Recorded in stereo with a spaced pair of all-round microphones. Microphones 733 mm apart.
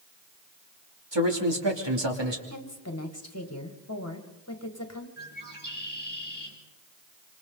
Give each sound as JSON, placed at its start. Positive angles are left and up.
{"t": 1.1, "sound": "a man speaking", "side_deg": -35, "distance_m": 3.0}
{"t": 2.5, "sound": "a woman speaking", "side_deg": 20, "distance_m": 2.0}
{"t": 5.2, "sound": "a bird", "side_deg": 10, "distance_m": 4.0}